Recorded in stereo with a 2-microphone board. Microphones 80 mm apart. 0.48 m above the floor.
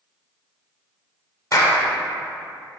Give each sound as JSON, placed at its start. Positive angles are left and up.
{"t": 1.5, "sound": "a clap", "side_deg": 45, "distance_m": 1.4}